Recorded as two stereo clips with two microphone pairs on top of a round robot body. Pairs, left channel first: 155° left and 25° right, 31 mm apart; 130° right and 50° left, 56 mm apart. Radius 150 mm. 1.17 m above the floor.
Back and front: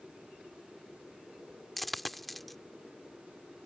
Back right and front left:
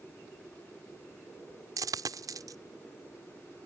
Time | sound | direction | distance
1.8 | a dropped coin | 70° left | ?